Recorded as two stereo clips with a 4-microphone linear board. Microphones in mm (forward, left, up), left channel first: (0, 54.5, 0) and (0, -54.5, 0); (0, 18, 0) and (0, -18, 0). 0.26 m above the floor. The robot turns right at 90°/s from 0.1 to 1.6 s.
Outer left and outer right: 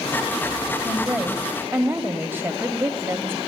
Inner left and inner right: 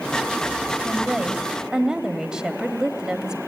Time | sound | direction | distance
0.8 | a woman speaking | centre (ahead or behind) | 0.9 m